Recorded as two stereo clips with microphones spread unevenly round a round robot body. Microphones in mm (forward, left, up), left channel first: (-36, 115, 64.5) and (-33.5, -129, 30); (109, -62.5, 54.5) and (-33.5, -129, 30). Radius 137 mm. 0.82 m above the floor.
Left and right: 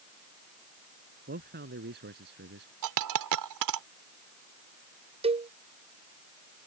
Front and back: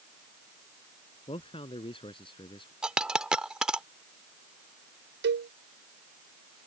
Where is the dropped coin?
70° right.